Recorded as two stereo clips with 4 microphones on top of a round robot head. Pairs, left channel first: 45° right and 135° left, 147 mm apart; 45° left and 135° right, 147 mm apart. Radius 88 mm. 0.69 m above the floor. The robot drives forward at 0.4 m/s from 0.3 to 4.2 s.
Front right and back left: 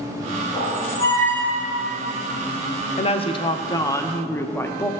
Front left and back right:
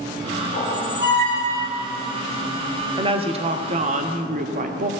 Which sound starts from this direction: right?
A woman speaking, at 3.0 s.